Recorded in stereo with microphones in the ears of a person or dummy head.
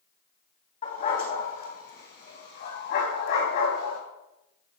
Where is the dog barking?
35° left (ahead or behind), 3 m; by 4.0 s 60° left (ahead or behind), 4 m.